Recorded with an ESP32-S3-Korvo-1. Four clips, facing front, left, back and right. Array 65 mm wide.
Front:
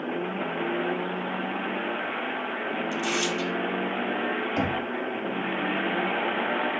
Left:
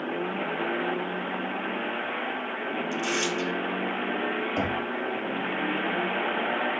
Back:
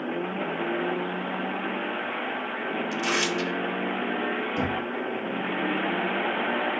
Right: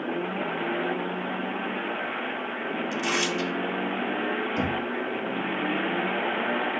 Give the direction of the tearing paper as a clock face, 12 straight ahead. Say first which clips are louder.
Right 1 dB, back 2 dB; 5 o'clock.